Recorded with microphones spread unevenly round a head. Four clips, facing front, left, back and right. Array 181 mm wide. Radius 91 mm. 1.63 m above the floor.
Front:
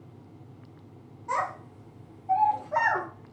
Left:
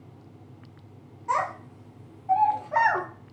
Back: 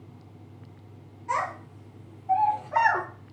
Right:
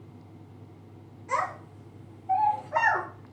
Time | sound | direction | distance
1.3 | a child speaking | 70° left | 1.7 m